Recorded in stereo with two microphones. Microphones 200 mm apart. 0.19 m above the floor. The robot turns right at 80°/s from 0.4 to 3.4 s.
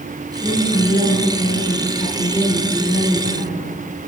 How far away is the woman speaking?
About 1.9 m.